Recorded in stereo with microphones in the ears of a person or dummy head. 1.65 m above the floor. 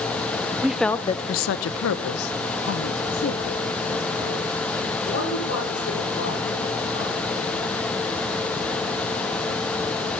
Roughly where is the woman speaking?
Centre.